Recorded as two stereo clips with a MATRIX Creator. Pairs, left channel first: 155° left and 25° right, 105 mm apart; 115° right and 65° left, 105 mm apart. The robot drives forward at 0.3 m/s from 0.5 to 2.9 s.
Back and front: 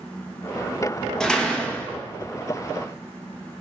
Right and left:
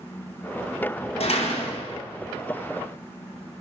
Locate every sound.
1.2 s a door slam: 120° right, 0.9 m; by 2.0 s 130° right, 1.1 m